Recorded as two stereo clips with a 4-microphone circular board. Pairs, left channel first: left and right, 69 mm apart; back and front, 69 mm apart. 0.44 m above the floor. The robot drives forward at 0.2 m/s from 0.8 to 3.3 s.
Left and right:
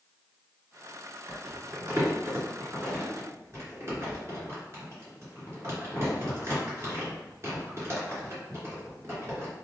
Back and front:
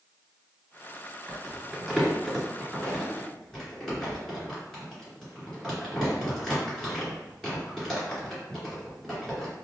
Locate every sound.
1.3 s crumpling: 90° right, 1.8 m; by 9.5 s 110° right, 1.8 m